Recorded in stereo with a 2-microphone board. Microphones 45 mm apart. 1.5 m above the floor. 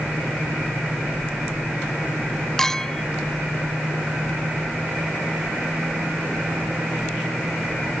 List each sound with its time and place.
2.6 s a clink: 10° left (ahead or behind)